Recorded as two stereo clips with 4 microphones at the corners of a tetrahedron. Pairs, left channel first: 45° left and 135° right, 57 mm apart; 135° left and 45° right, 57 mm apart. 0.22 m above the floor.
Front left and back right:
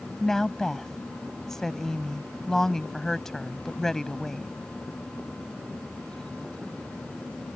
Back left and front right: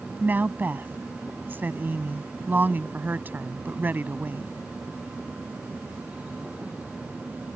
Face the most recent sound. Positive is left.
turn(degrees=-30)